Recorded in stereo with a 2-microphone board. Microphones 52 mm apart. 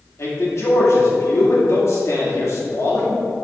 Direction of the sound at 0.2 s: 60° left (ahead or behind).